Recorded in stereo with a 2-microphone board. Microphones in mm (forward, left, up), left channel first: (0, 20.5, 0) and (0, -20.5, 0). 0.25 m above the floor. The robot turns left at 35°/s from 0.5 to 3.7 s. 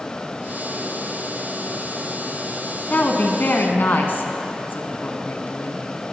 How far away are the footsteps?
I don't hear footsteps.